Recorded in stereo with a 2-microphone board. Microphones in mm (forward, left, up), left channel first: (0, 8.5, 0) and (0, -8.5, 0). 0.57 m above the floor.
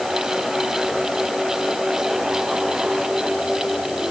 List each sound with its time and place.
Only background noise.